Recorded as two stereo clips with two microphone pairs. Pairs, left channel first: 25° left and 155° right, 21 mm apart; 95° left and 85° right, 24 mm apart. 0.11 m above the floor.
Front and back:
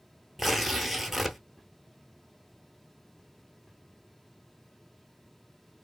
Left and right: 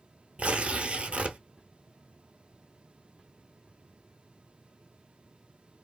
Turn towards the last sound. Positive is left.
turn(degrees=-85)